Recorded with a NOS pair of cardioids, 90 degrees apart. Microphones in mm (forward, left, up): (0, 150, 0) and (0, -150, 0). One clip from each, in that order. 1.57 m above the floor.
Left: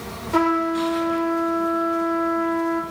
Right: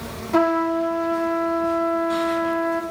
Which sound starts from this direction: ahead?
A trumpet, at 0.3 s.